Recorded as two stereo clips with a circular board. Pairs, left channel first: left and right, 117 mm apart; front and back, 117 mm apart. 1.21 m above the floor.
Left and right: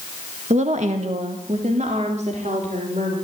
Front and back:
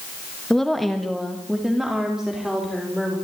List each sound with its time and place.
0.5 s a woman speaking: 85° right, 1.5 m; by 3.1 s 95° right, 5 m